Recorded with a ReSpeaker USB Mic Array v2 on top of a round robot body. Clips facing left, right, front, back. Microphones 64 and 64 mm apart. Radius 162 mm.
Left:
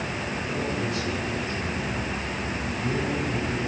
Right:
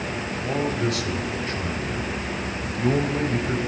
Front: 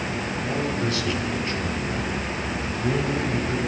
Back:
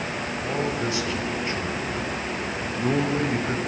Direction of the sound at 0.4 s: 105° right.